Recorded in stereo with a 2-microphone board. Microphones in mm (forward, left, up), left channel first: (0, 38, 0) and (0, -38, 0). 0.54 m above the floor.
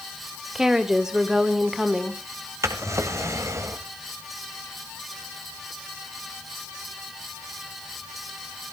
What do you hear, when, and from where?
0.6 s a woman speaking: 5° right (ahead or behind), 1.6 m
2.6 s a drawer: 40° right (ahead or behind), 1.4 m